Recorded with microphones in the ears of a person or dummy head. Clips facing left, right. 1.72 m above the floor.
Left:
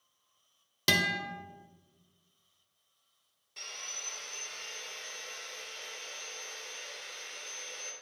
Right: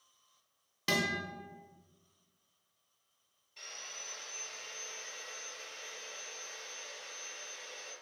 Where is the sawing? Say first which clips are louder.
Left 2 dB; 65° left (ahead or behind), 0.9 m.